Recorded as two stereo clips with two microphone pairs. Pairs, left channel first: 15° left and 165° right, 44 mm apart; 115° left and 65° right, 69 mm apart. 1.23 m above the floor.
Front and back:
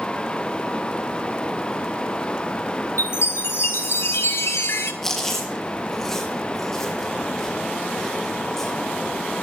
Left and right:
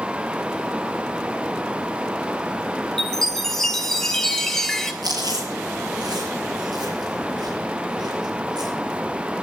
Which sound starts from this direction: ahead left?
A chime, at 3.0 s.